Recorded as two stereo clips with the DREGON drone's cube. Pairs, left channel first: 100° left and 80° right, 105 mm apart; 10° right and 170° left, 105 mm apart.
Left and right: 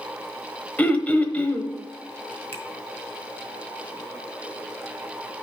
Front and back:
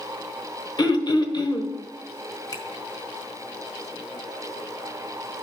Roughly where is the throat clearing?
Ahead left.